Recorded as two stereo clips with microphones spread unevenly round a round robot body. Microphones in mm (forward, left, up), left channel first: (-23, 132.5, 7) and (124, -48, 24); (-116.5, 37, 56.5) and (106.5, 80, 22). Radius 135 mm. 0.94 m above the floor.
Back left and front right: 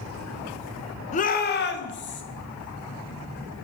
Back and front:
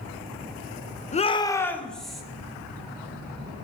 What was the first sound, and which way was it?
A shout, 140° left.